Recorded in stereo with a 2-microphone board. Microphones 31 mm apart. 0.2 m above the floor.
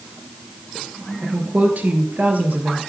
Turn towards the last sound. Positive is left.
turn(degrees=-70)  # may be behind; listen again after turning